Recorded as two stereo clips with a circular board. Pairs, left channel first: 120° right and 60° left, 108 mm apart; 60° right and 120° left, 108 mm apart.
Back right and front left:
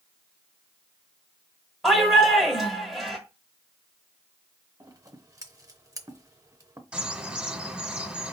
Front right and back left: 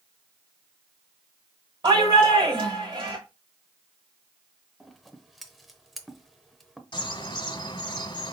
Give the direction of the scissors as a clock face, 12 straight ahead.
11 o'clock.